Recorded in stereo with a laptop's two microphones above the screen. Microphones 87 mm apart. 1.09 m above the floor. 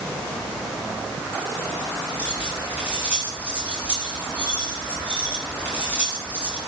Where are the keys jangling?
20° right (ahead or behind), 6.5 m.